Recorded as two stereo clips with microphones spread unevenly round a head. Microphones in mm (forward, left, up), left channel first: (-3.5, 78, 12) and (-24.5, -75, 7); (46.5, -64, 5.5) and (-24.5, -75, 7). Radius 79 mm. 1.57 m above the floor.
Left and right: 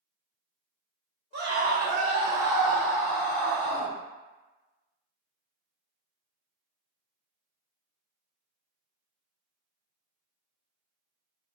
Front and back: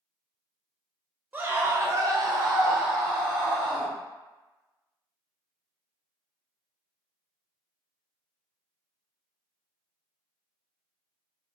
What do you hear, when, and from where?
1.3 s a scream: 110° right, 0.9 m; by 3.9 s 120° left, 1.2 m